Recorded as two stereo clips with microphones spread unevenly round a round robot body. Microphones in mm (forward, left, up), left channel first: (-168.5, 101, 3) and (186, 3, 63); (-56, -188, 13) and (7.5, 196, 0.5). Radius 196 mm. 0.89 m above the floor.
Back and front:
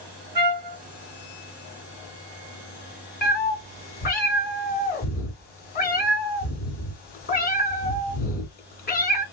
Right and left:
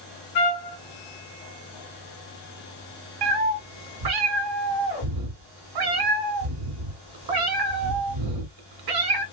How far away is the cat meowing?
About 1.2 m.